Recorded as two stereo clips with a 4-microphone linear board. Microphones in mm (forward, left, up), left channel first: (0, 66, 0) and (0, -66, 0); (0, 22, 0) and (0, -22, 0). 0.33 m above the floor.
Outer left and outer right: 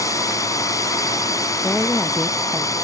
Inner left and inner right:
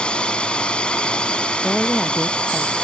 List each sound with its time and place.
0.0 s a drone: 25° left (ahead or behind)
1.6 s a woman speaking: 5° left (ahead or behind)